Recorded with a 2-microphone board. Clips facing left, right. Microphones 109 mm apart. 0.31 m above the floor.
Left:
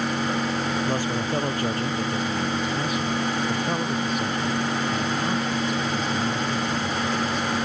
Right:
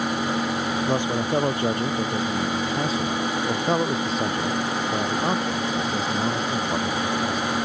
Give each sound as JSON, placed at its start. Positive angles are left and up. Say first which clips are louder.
{"t": 0.9, "sound": "a man speaking", "louder": "right 2 dB", "side_deg": -20}